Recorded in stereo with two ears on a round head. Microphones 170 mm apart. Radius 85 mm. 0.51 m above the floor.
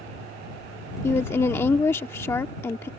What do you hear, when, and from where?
1.0 s a woman speaking: 15° left (ahead or behind)